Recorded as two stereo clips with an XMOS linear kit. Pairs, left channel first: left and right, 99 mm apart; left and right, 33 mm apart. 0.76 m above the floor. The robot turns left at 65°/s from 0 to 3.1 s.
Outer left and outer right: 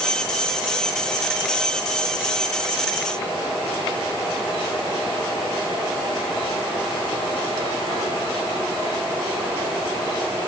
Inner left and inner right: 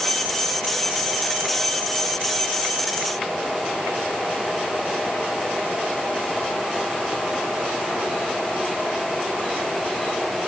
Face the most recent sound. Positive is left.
No sound to turn to.